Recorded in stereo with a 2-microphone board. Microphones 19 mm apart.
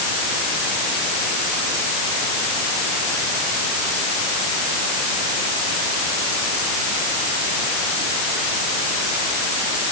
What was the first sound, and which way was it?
Only background noise.